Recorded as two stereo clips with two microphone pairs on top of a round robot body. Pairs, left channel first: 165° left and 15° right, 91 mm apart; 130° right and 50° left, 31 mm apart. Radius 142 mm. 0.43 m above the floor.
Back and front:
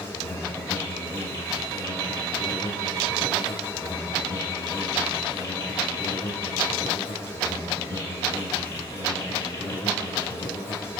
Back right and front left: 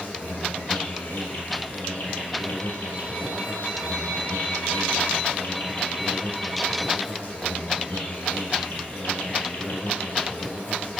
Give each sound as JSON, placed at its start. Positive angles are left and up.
{"t": 0.0, "sound": "an insect", "azimuth_deg": -135, "distance_m": 1.1}